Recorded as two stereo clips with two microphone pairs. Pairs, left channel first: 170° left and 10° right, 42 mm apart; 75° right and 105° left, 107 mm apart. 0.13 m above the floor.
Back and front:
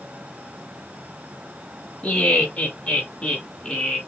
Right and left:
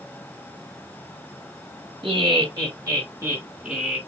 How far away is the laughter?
About 2.5 m.